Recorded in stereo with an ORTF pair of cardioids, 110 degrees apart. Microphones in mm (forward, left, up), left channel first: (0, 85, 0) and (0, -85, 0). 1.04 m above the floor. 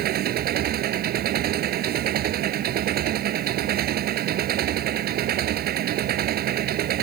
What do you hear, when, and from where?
0.0 s an engine running: 65° right